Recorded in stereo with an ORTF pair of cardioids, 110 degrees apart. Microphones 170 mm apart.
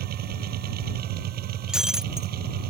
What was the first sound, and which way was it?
A machine running, 70° right.